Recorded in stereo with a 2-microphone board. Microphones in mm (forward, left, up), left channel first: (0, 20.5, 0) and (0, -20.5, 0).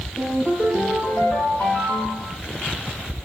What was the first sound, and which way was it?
A ringtone, 65° left (ahead or behind).